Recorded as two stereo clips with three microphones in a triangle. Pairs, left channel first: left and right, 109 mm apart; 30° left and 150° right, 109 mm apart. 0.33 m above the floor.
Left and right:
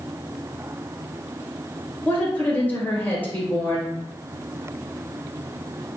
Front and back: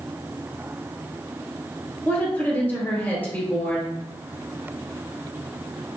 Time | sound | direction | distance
2.0 | a woman speaking | 50° left | 1.0 m